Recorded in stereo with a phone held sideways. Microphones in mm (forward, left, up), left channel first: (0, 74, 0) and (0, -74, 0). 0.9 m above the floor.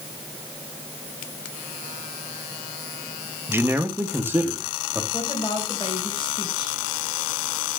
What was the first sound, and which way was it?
A man speaking, 15° right (ahead or behind).